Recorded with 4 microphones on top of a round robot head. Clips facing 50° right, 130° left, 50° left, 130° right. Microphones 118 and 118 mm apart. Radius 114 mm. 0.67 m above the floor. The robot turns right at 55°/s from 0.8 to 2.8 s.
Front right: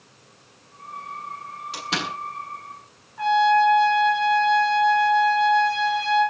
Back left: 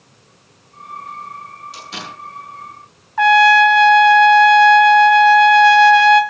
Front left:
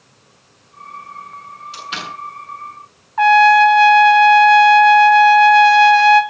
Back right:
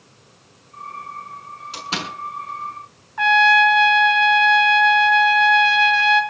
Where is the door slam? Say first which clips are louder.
Front right 6 dB, back right 1 dB; 85° right, 7.5 m; by 2.1 s 65° right, 7.5 m.